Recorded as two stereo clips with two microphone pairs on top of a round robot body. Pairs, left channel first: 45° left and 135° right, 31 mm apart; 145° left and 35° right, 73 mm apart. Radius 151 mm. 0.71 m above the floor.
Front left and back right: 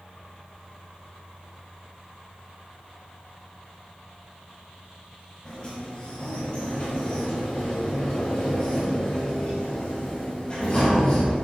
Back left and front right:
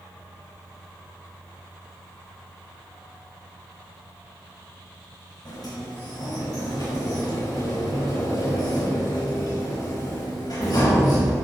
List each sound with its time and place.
5.5 s a sliding door: 110° left, 4 m